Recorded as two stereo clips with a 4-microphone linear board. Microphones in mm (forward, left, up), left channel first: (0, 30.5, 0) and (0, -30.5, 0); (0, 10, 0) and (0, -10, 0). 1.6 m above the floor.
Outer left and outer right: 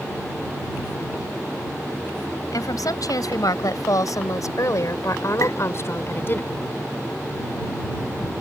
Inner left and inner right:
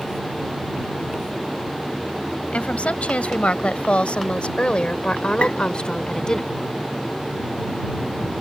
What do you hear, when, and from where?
2.5 s a woman speaking: 80° left; by 6.4 s 40° left (ahead or behind)
5.4 s tapping: 55° left (ahead or behind)